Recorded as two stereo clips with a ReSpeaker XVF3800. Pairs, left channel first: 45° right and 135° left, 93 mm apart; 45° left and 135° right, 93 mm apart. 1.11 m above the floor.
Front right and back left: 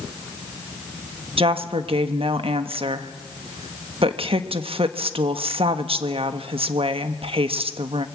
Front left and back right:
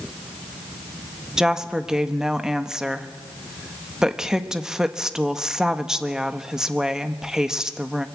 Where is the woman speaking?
140° left, 1.3 m.